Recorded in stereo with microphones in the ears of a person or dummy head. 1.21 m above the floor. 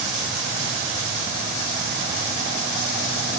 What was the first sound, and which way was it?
Only background noise.